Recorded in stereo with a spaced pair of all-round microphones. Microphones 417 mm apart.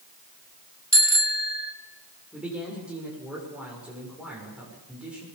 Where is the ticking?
No ticking in this recording.